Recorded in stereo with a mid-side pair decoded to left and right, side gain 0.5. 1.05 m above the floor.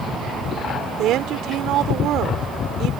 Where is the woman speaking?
70° right.